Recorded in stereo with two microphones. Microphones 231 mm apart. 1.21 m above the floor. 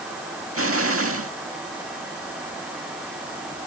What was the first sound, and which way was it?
An explosion, 65° right (ahead or behind).